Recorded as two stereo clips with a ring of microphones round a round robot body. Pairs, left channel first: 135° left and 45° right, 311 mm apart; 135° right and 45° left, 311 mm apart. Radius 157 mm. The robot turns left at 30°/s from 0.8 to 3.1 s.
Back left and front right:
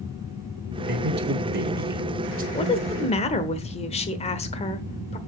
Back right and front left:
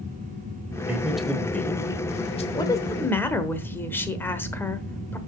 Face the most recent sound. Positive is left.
turn(degrees=155)